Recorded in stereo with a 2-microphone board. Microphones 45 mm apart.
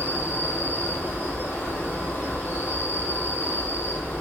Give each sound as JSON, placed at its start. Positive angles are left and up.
{"t": 0.0, "sound": "an insect", "side_deg": 70, "distance_m": 1.8}